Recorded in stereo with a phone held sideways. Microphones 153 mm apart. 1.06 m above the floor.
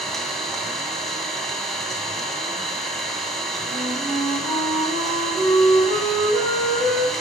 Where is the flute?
70° right (ahead or behind), 3.5 m.